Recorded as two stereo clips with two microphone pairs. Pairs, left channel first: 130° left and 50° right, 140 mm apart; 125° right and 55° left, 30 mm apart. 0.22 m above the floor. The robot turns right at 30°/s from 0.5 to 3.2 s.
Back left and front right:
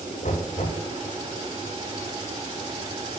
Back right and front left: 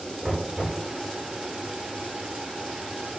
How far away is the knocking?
About 8 m.